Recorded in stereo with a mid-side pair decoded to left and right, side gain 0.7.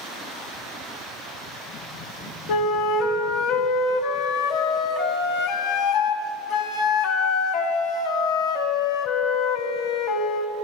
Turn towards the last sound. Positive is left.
turn(degrees=65)